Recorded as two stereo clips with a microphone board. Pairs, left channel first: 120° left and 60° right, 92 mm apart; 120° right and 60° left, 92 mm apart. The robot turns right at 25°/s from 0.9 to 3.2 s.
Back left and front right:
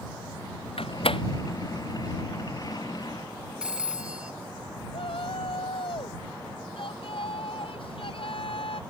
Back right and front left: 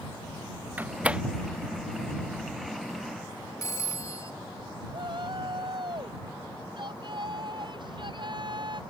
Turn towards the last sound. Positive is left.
turn(degrees=100)